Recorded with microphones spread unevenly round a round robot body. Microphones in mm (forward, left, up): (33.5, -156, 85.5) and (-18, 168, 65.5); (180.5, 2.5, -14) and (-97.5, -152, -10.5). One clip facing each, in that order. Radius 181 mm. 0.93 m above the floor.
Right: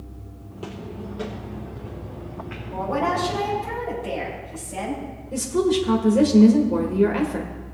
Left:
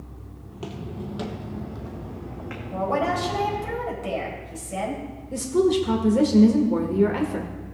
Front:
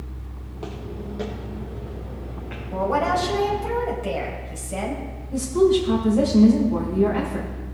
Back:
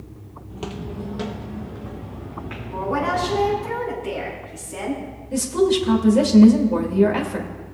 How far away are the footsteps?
About 1.0 m.